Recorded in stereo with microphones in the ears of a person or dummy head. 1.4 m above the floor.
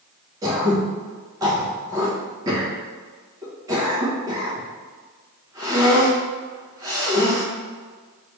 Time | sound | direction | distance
0.4 | throat clearing | 20° right (ahead or behind) | 1.2 m